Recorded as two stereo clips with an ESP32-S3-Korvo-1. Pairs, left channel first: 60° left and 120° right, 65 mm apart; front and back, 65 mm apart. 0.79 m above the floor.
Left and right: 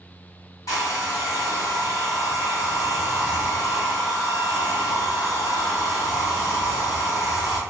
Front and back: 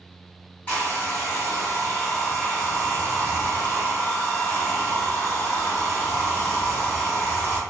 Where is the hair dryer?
65° left, 1.3 m.